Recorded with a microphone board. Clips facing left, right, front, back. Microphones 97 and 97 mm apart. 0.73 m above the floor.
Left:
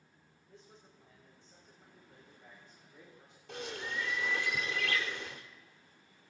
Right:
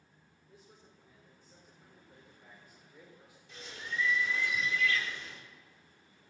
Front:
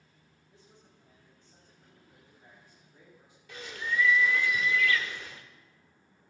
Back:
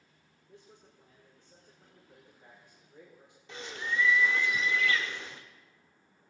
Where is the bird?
115° left, 1.3 m.